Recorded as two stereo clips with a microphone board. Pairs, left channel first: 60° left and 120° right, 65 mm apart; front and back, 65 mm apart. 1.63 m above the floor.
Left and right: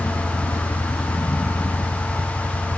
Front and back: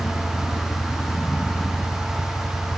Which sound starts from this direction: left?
A vehicle, at 0.0 s.